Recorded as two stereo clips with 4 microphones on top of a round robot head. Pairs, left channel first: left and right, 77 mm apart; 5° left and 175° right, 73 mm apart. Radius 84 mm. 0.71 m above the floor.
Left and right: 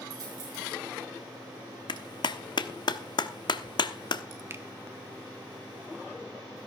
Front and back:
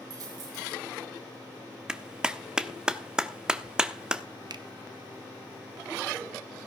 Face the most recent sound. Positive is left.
turn(degrees=-150)